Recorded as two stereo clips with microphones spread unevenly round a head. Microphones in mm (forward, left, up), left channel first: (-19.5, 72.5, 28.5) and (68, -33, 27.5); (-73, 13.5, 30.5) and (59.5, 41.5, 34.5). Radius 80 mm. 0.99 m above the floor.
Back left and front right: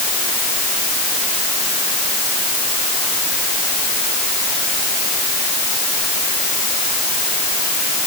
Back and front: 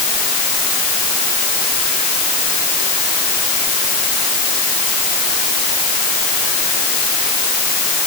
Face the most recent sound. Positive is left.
No sound to turn to.